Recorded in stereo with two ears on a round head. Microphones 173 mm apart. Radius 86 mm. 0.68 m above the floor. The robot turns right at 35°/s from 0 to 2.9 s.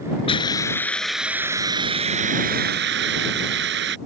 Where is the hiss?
150° left; by 4.0 s 115° right.